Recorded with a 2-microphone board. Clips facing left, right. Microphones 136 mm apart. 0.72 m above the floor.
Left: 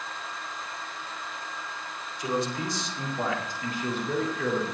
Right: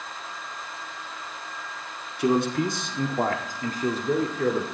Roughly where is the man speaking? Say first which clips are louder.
Right 7 dB; right.